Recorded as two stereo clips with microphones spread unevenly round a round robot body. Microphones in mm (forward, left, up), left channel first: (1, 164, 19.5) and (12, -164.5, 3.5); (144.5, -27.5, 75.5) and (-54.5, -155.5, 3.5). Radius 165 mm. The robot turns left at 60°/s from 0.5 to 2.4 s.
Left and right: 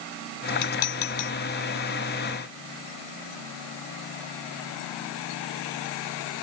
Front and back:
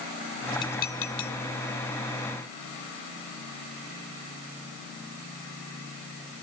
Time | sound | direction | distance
0.6 | dishes clattering | 110° left | ?